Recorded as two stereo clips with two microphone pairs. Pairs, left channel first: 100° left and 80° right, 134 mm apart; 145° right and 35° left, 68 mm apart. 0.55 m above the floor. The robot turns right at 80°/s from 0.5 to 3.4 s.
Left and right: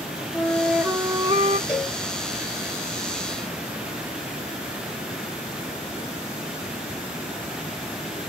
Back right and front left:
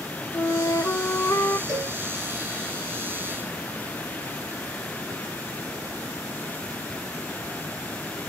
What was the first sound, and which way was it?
A flute, 175° right.